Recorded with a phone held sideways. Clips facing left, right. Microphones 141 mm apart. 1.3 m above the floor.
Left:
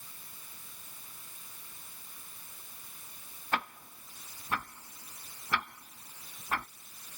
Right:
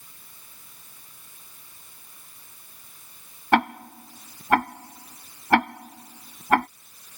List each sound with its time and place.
3.5 s ticking: 80° right